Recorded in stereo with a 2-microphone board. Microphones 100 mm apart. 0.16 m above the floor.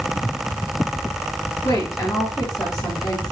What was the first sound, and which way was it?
A woman speaking, 35° left (ahead or behind).